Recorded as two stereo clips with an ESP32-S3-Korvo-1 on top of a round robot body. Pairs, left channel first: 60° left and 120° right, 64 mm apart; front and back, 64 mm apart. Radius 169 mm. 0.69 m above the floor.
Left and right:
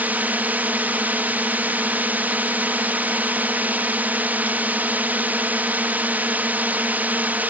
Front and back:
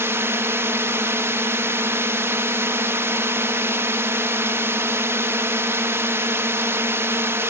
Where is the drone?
170° right.